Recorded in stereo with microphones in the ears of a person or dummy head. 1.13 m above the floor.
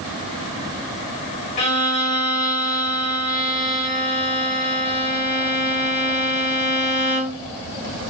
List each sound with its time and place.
1.6 s a violin: 35° left (ahead or behind), 2 m